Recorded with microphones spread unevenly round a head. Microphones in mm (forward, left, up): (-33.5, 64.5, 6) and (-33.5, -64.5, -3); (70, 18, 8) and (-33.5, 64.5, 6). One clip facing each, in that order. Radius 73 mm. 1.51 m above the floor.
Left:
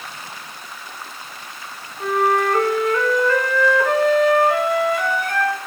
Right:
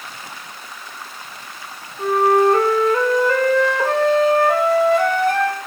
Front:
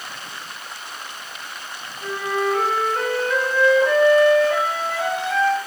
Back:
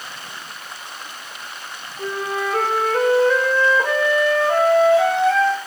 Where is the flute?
150° right, 2.5 m.